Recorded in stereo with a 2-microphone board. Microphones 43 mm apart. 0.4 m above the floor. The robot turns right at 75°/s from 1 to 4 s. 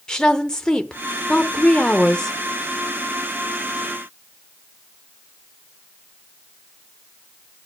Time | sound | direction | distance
0.1 | a woman speaking | 15° left (ahead or behind) | 0.8 m